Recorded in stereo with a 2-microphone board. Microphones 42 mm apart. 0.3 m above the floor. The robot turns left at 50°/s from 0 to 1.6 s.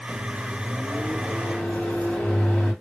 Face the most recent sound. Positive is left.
turn(degrees=145)